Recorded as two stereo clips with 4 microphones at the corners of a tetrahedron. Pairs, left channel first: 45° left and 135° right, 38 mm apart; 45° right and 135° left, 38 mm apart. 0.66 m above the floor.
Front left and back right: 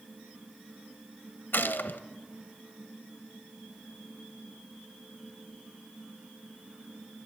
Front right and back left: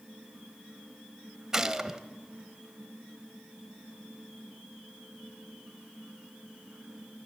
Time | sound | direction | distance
1.5 | a gunshot | 60° left | 0.9 m